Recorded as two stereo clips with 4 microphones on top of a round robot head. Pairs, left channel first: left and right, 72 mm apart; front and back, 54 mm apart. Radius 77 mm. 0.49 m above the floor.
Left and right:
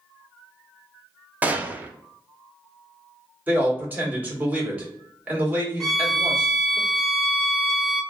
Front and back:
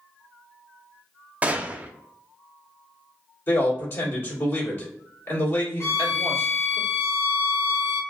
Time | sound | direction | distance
1.4 | a gunshot | 140° right | 0.6 m
3.5 | a man speaking | 30° right | 1.8 m
5.8 | a violin | straight ahead | 1.2 m